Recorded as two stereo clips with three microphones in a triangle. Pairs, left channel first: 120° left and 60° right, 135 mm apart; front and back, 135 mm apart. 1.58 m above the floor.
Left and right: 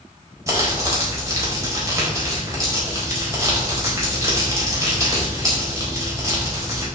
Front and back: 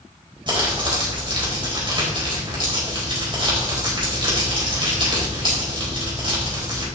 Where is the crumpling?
125° right, 4 m.